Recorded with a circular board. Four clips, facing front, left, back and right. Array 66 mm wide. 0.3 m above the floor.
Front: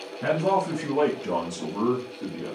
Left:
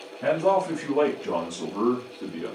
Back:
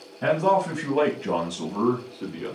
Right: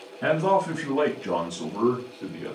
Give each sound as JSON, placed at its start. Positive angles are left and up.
{"t": 0.2, "sound": "a man speaking", "azimuth_deg": -155, "distance_m": 1.5}